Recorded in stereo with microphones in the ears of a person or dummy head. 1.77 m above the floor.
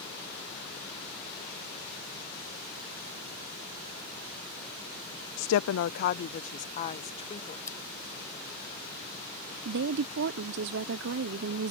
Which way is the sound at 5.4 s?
65° left (ahead or behind).